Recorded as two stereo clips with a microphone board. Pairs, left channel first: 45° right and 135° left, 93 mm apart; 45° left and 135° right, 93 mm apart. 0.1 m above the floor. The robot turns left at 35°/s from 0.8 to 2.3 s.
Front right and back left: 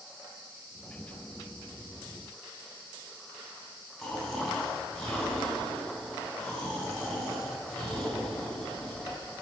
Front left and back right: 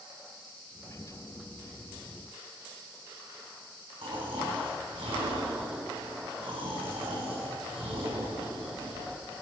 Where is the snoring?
135° right, 4 m.